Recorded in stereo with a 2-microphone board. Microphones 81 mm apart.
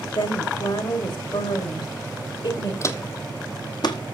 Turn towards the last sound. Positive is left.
turn(degrees=60)  # may be behind; listen again after turning